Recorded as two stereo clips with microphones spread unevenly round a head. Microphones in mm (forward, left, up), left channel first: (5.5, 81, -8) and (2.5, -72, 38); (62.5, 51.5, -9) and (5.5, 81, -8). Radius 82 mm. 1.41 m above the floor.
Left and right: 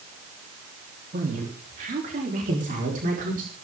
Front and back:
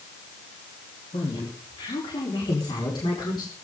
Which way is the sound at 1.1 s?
50° right.